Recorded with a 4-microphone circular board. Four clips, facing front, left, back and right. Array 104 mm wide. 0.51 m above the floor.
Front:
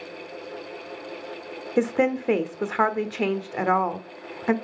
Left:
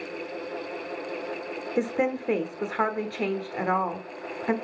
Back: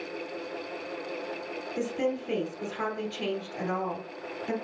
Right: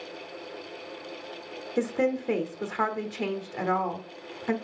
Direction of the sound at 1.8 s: 15° left.